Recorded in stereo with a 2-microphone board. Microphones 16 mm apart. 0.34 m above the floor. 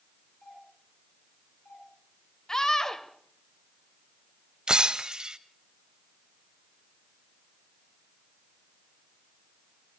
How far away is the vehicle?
I don't hear a vehicle.